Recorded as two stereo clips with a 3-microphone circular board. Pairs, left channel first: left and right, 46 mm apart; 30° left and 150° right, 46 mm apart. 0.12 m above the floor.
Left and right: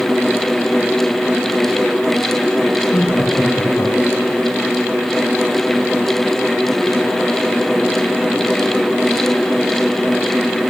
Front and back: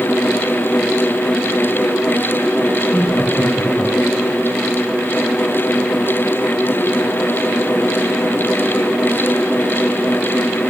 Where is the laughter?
85° left, 6 m.